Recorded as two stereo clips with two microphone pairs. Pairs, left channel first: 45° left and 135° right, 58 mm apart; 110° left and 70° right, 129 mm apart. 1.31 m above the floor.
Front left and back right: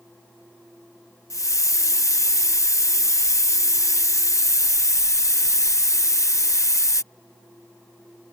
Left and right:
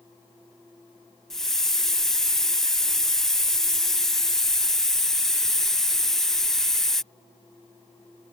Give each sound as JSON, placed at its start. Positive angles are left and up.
{"t": 1.3, "sound": "a hiss", "azimuth_deg": 25}